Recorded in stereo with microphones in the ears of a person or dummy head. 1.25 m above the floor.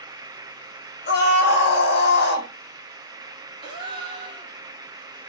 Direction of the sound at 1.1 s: 50° left (ahead or behind).